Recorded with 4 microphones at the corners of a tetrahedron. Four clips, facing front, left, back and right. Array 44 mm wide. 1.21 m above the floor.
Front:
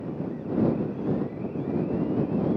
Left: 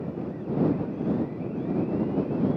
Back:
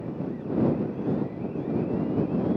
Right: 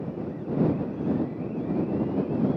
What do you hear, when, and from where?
Only background noise.